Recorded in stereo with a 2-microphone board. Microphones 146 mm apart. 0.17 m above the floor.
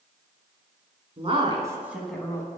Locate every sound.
1.2 s a woman speaking: 45° right (ahead or behind), 1.6 m; by 2.5 s 25° left (ahead or behind), 1.3 m